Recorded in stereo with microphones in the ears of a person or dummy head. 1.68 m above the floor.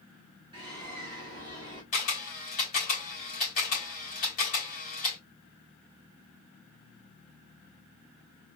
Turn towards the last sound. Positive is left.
turn(degrees=30)  # may be behind; listen again after turning